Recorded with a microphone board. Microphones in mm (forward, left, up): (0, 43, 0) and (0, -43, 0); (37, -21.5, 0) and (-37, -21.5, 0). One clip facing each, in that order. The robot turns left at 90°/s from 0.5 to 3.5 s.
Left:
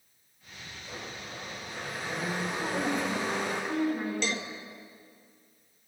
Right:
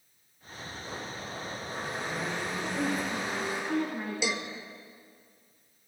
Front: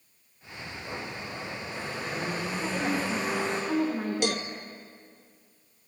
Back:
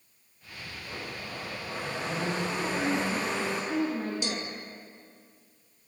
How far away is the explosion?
No explosion in this recording.